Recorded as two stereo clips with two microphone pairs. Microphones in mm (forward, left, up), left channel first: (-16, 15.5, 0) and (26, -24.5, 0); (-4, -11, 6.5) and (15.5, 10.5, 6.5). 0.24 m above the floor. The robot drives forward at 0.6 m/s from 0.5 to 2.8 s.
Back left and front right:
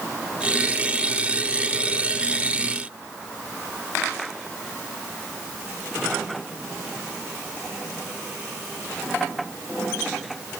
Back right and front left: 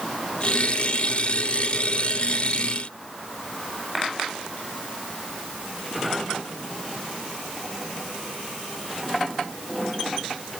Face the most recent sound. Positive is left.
No sound to turn to.